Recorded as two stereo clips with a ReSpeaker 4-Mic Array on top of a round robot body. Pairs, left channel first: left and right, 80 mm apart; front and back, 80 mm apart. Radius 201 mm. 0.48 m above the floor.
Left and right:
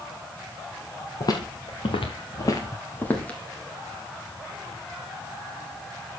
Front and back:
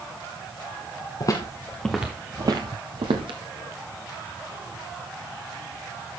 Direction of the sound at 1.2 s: 45° left.